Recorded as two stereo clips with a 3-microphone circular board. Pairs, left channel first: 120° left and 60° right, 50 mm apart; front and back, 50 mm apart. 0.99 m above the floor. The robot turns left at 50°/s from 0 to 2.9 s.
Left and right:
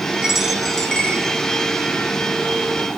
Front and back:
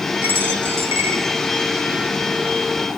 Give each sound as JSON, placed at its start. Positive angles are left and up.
{"t": 0.2, "sound": "a dropped coin", "azimuth_deg": -130, "distance_m": 6.0}